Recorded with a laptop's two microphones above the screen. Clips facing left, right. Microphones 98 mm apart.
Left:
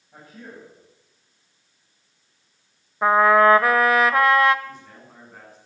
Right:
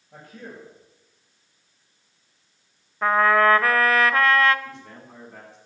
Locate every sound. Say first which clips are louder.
0.1 s a man speaking: right 1 dB; 85° right, 6 m
3.0 s a trumpet: left 3 dB; 15° left (ahead or behind), 0.8 m
4.7 s a man speaking: even; 80° right, 7.5 m